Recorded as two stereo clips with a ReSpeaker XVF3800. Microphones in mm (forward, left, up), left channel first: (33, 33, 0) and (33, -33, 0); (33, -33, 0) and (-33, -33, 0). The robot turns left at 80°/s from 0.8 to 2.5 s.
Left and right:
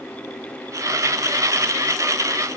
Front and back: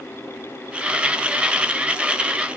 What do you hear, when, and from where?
Only background noise.